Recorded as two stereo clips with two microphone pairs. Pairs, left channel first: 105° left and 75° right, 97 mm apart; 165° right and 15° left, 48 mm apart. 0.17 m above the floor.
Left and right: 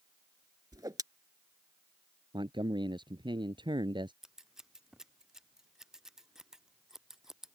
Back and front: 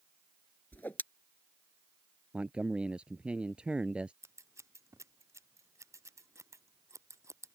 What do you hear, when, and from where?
0.7 s a whoosh: 120° right
2.3 s a man speaking: 50° right
4.2 s scissors: 10° left